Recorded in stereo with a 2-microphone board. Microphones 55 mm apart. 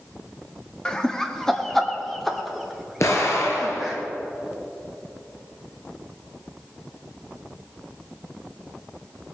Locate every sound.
0.8 s laughter: 15° left (ahead or behind), 1.2 m; by 4.0 s 5° right (ahead or behind), 3 m
3.0 s an explosion: 60° left (ahead or behind), 2.5 m